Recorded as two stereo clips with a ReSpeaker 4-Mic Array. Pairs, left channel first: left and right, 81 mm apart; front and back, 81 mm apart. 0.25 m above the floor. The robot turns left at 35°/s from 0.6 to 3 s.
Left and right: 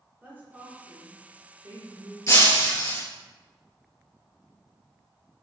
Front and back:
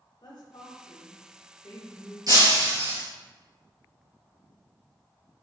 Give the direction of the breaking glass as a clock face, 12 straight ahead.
7 o'clock.